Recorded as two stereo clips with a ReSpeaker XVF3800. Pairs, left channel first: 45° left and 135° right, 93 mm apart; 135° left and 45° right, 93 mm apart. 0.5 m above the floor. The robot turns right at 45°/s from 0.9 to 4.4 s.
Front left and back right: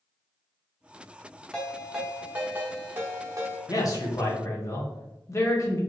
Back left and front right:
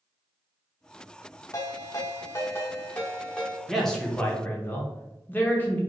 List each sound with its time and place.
1.5 s a ringtone: 125° left, 0.9 m; by 3.6 s 140° right, 0.9 m
3.7 s a man speaking: 45° left, 0.8 m; by 5.8 s 80° left, 0.8 m